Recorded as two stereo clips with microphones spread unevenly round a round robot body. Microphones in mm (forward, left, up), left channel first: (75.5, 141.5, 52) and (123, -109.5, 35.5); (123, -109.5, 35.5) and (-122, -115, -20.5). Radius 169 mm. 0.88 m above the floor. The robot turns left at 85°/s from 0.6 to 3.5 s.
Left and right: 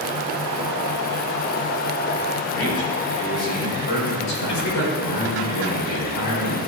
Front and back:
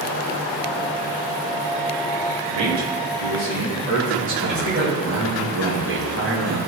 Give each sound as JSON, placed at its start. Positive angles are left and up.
{"t": 2.5, "sound": "a man speaking", "azimuth_deg": -165, "distance_m": 4.5}
{"t": 3.9, "sound": "a man speaking", "azimuth_deg": 130, "distance_m": 4.0}